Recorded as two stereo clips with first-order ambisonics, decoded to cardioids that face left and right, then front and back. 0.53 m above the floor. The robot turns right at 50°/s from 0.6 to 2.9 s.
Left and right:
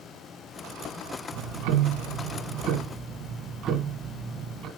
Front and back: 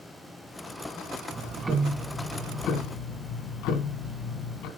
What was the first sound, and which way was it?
Ticking, 115° right.